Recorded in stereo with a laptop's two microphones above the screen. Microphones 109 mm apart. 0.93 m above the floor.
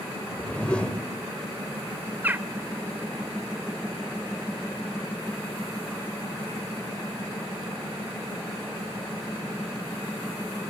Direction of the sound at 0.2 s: 10° left (ahead or behind).